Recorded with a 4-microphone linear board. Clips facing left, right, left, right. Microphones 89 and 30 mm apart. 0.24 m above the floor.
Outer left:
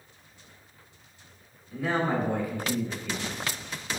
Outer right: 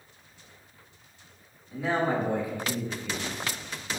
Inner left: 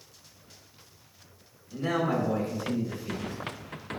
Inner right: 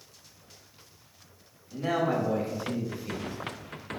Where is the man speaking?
20° right (ahead or behind), 1.1 m.